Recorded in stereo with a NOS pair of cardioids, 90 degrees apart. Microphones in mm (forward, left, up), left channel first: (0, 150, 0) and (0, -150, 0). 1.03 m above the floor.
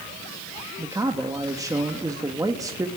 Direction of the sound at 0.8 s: 10° right.